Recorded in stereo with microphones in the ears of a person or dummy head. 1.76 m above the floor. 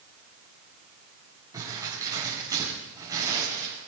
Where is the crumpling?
20° right (ahead or behind), 7 m.